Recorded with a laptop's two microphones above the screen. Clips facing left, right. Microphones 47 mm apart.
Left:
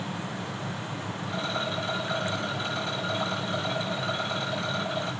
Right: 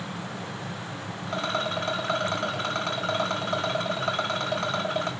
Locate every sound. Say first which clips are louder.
0.0 s a fan: left 1 dB; 50° left (ahead or behind), 1.3 m
1.3 s a rattle: right 3 dB; 60° right (ahead or behind), 1.0 m